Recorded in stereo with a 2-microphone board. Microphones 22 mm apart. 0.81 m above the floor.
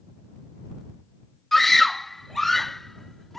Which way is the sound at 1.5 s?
10° left (ahead or behind).